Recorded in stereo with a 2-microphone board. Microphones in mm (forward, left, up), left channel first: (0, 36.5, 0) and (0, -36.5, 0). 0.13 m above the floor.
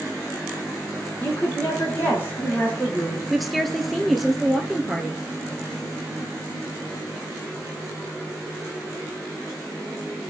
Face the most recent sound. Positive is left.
turn(degrees=0)  # may be behind; listen again after turning